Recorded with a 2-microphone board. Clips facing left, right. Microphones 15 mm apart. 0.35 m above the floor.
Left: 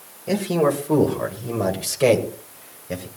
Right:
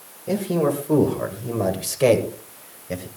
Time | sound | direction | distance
0.3 | a man speaking | 25° left (ahead or behind) | 1.7 m